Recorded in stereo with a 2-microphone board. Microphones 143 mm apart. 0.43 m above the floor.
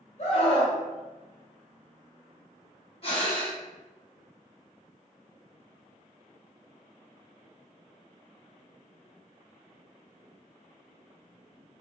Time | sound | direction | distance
0.2 | a scream | 55° left (ahead or behind) | 1.5 m
3.0 | breathing | 40° left (ahead or behind) | 1.5 m